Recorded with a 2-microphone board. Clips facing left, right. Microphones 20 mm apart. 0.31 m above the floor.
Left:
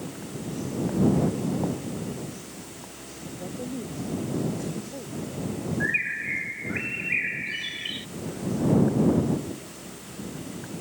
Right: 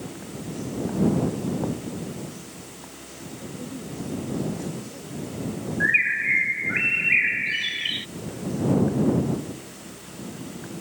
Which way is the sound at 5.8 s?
25° right (ahead or behind).